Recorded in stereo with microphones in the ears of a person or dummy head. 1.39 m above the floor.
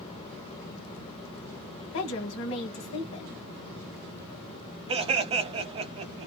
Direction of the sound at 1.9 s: 70° left (ahead or behind).